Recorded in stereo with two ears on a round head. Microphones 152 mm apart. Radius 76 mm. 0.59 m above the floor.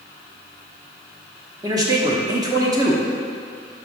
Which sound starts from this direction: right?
A man speaking, at 1.6 s.